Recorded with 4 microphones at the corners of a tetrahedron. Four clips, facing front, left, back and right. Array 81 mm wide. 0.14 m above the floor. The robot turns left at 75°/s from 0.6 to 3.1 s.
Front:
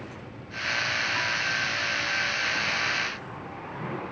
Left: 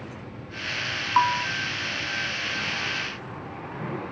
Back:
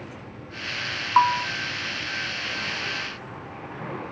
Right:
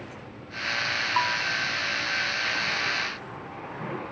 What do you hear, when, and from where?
1.2 s a bell: 160° left; by 1.5 s 140° left